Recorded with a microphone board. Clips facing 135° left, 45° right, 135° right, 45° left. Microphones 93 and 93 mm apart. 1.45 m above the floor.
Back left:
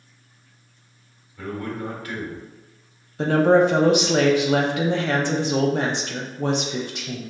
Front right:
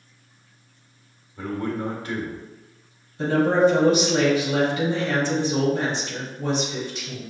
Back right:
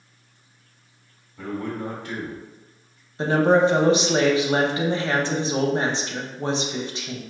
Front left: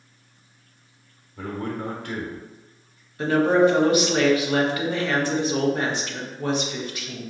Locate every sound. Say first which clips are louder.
1.4 s a man speaking: front right 2 dB, even; 15° left, 1.1 m
3.2 s a woman speaking: back left 2 dB, even; 160° left, 0.7 m